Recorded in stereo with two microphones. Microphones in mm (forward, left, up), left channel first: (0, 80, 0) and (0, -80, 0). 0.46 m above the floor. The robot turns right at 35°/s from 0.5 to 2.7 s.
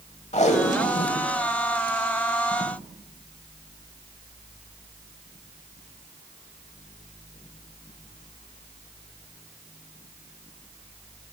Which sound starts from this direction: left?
Tape being pulled, at 0.3 s.